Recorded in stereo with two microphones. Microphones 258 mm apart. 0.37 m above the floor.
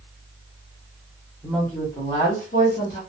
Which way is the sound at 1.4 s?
Centre (ahead or behind).